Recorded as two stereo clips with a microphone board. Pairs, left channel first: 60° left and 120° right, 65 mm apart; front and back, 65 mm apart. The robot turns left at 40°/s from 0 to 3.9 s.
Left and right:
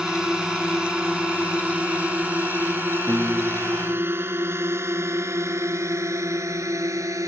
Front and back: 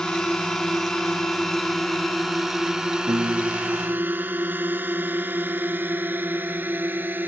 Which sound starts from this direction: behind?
A piano, at 3.1 s.